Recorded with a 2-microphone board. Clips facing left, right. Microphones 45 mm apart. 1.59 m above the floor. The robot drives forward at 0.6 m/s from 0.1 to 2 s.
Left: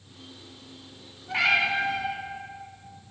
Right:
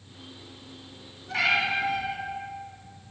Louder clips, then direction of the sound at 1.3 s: Left 1 dB; 15° left (ahead or behind).